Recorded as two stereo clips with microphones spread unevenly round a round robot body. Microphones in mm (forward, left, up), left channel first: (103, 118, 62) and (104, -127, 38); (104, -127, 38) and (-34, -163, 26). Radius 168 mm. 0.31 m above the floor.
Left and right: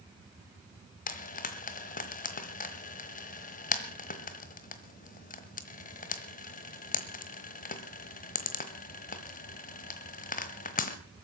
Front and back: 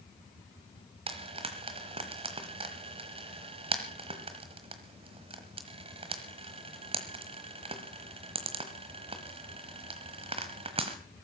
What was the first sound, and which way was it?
Frying, 150° left.